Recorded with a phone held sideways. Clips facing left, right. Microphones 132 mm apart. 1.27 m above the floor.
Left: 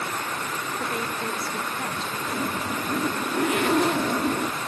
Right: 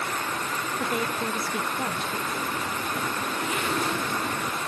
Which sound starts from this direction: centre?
A woman speaking, at 0.8 s.